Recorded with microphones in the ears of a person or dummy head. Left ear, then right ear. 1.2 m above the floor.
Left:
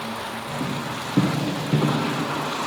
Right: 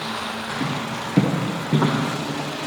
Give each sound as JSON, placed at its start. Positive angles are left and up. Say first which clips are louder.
{"t": 0.6, "sound": "footsteps", "louder": "right 2 dB", "side_deg": -5, "distance_m": 3.5}